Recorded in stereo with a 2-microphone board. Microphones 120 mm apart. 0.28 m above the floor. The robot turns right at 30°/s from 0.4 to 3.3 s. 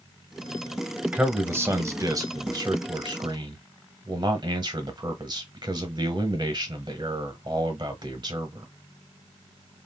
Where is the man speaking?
160° right, 1.0 m; by 8.7 s 95° right, 1.0 m.